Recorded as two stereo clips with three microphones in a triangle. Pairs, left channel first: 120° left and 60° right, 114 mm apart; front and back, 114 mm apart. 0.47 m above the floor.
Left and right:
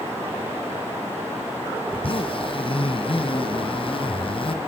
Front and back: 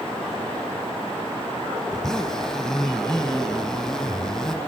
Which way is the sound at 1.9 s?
85° left.